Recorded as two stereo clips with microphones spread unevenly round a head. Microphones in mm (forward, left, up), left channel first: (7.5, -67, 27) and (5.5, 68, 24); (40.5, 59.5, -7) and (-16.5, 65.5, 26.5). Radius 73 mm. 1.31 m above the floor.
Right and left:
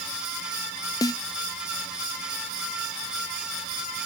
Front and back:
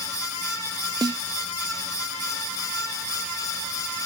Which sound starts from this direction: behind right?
A snare drum, at 1.0 s.